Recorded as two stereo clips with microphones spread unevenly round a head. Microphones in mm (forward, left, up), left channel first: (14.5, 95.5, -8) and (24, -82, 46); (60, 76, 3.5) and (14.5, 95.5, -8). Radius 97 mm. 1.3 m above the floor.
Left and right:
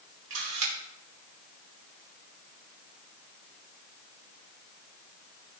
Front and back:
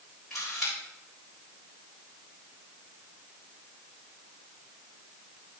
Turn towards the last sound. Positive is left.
turn(degrees=-110)